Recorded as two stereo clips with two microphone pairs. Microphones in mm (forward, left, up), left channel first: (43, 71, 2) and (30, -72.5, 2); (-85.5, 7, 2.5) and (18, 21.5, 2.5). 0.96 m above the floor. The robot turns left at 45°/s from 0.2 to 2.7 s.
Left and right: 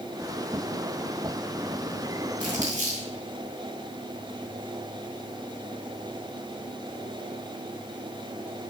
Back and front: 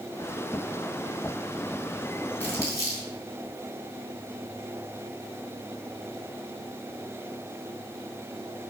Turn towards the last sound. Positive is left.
turn(degrees=-115)